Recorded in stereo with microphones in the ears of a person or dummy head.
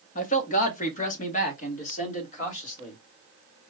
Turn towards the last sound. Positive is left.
turn(degrees=45)  # may be behind; listen again after turning